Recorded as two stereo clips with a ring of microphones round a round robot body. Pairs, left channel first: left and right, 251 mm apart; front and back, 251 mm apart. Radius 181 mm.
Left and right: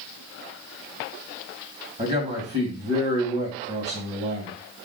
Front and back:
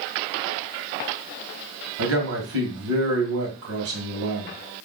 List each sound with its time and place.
2.0 s a man speaking: 160° right, 2.0 m